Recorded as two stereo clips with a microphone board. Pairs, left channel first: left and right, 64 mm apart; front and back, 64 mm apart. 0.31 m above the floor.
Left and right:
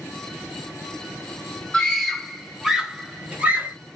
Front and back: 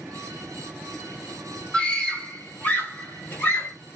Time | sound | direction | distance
1.7 | a scream | 40° left | 1.2 m